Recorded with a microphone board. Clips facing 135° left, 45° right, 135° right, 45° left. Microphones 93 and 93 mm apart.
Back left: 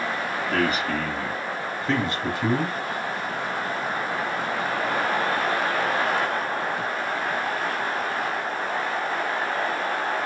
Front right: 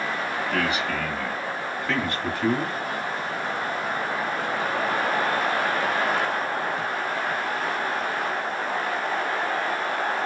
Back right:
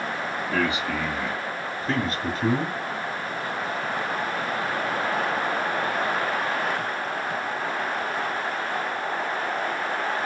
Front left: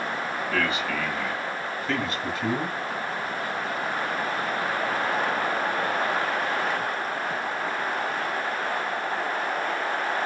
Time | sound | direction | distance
0.5 | a man speaking | 155° left | 2.0 m